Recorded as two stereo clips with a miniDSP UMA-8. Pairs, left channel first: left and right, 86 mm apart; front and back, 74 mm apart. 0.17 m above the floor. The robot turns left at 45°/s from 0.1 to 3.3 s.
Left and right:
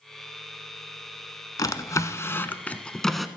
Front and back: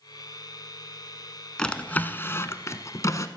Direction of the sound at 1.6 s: 75° left.